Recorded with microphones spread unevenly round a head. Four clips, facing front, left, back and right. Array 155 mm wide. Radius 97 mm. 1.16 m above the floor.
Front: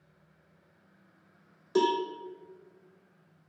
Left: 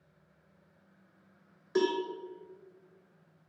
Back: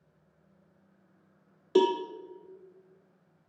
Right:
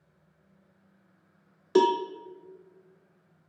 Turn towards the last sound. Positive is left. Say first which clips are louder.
# right 7 dB, back 2 dB
turn(degrees=-135)